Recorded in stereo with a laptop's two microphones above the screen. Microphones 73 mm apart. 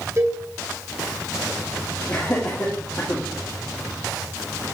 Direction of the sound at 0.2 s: 40° right (ahead or behind).